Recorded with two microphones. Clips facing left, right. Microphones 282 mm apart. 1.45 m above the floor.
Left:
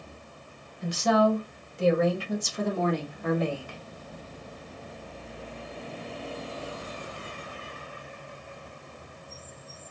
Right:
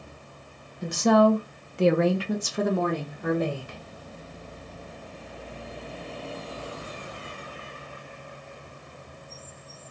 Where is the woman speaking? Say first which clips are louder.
Right 4 dB; 50° right (ahead or behind), 1.0 m; by 3.8 s 45° right (ahead or behind), 1.5 m.